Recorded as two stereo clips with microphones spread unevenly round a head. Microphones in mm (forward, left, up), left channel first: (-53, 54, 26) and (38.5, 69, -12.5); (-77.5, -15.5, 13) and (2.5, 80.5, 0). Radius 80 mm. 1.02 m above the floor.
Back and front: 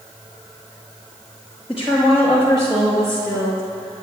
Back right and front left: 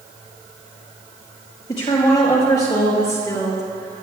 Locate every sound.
1.7 s a woman speaking: 75° right, 5 m; by 4.0 s 60° right, 3 m